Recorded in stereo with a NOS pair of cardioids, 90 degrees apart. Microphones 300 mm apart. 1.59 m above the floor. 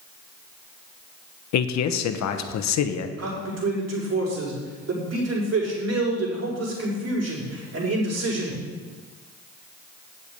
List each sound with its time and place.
1.5 s a man speaking: 70° left, 1.1 m
3.2 s a man speaking: 55° right, 5 m